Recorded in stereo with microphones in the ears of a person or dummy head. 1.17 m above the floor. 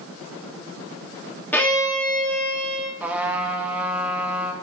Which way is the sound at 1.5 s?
10° left (ahead or behind).